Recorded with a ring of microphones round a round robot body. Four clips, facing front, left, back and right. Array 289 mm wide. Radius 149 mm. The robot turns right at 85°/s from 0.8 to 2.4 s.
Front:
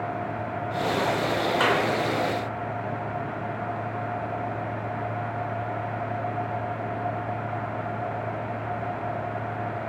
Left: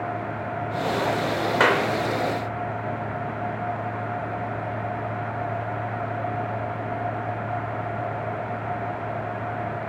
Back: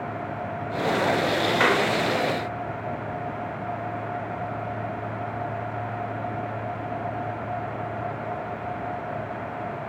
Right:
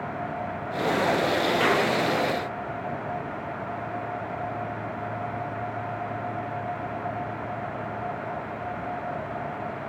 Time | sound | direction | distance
1.6 | a clap | 95° left | 3 m